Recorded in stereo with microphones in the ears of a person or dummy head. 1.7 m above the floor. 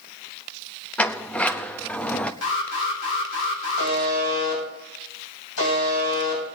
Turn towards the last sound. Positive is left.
turn(degrees=80)